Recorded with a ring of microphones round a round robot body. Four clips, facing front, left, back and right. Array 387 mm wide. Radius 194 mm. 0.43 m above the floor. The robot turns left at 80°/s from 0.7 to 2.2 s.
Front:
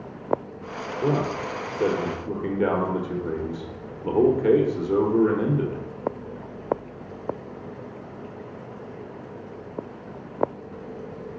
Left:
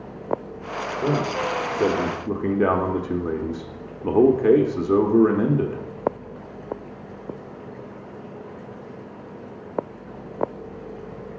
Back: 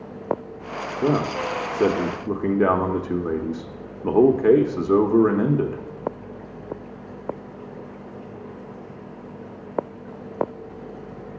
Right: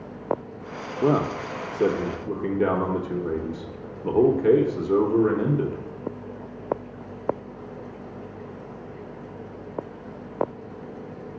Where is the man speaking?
115° right, 0.9 m; by 5.8 s 150° left, 0.9 m.